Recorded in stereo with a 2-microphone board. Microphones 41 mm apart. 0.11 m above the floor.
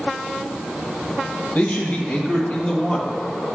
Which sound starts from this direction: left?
A man speaking, at 1.6 s.